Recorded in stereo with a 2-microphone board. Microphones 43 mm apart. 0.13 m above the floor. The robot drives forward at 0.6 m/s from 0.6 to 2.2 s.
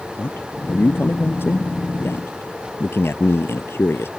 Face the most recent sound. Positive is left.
turn(degrees=60)  # may be behind; listen again after turning